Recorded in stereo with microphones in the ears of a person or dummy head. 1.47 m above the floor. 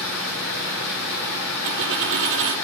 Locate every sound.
0.0 s running water: 80° left, 5 m
1.6 s a dropped coin: 60° right (ahead or behind), 3 m